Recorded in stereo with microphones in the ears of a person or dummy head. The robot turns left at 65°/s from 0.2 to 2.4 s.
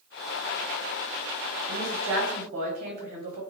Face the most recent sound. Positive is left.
turn(degrees=-135)